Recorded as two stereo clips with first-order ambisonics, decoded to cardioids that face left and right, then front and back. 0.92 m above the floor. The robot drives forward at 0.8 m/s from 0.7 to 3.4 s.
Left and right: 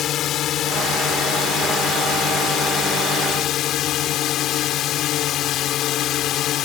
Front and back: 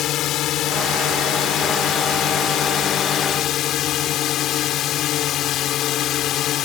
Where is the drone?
40° left; by 6.7 s 45° left.